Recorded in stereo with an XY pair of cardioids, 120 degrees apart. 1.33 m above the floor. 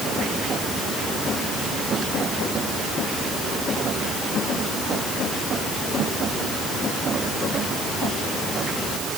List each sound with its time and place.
Only background noise.